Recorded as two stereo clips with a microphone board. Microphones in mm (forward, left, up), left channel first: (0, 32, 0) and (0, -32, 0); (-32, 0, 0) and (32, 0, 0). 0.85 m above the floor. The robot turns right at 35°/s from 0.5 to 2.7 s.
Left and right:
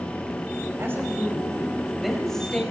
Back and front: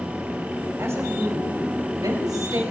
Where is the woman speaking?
45° right, 5.5 m; by 2.6 s 20° left, 5.5 m.